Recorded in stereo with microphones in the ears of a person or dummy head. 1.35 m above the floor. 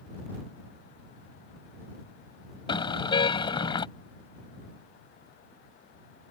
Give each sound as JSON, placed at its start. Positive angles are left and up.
{"t": 2.7, "sound": "a car horn", "side_deg": 30}